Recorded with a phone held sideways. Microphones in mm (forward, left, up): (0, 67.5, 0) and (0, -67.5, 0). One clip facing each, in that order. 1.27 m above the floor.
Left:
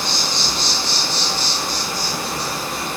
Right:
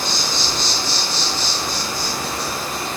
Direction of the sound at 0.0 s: 30° left (ahead or behind).